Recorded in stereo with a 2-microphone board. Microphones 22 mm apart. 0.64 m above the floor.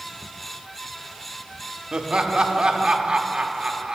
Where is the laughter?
45° right (ahead or behind), 0.8 m.